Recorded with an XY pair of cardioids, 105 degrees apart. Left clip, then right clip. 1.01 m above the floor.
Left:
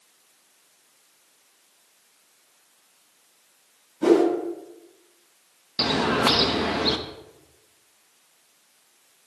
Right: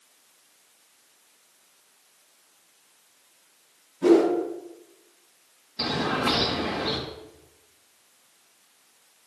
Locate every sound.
4.0 s a whoosh: 50° left, 3.5 m
5.8 s a bird: 70° left, 0.8 m